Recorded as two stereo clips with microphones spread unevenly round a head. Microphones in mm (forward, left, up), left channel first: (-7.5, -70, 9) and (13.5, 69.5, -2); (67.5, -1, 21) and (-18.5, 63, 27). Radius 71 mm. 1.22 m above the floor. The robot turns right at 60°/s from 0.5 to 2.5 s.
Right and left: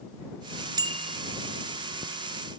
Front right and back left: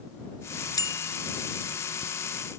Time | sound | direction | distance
0.8 | a bicycle bell | 15° left | ?